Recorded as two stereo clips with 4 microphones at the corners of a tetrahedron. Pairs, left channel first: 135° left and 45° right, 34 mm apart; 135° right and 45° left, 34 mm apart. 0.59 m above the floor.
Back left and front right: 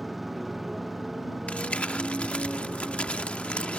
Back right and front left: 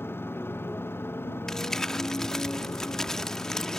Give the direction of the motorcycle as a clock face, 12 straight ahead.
4 o'clock.